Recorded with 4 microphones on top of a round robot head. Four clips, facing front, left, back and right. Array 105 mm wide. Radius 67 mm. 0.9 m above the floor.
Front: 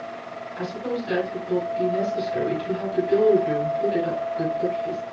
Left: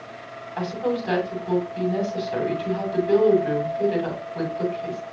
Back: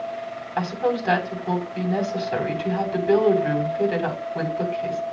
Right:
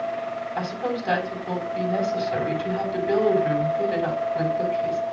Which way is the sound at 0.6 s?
170° right.